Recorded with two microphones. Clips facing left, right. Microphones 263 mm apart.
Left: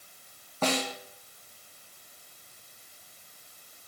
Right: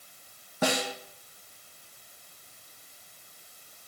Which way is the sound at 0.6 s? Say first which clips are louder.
Right 1 dB; 10° right (ahead or behind).